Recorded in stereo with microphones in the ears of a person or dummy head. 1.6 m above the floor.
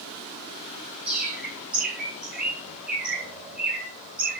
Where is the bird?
10° right (ahead or behind), 4 m.